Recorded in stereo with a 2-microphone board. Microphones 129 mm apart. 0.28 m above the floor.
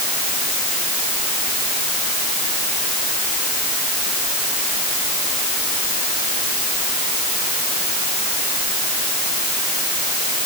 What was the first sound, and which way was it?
Only background noise.